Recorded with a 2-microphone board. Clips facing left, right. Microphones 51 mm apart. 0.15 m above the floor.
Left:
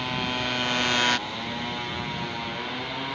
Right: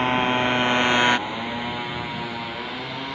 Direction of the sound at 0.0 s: 35° right (ahead or behind).